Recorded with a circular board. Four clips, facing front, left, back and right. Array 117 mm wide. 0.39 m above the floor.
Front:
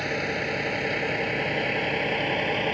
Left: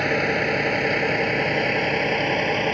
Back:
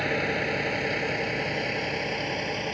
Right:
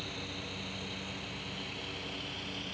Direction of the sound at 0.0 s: 95° left.